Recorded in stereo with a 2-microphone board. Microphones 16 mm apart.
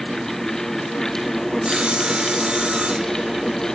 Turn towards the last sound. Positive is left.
turn(degrees=-60)  # may be behind; listen again after turning